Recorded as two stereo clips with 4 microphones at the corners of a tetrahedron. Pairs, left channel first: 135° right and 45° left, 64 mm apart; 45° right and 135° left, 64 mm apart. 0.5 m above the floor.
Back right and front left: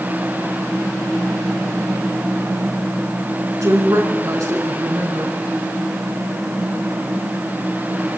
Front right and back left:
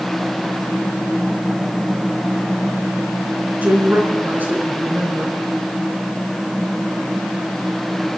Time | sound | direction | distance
3.6 | a woman speaking | 75° left | 5 m